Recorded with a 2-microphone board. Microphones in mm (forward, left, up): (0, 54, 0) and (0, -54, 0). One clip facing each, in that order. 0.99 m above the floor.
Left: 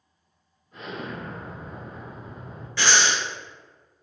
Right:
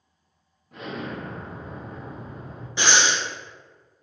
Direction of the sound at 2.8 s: 20° right (ahead or behind).